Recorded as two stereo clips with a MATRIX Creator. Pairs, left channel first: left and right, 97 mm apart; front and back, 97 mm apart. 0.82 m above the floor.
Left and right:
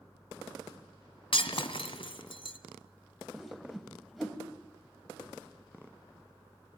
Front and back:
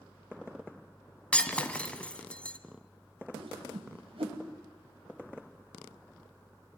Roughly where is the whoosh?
Behind.